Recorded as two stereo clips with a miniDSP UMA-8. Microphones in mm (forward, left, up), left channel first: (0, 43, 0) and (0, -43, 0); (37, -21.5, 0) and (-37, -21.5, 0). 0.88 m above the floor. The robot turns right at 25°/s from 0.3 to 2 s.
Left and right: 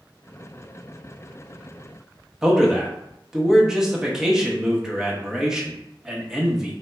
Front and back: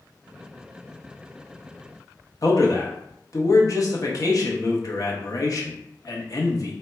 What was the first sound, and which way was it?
A man speaking, 10° right.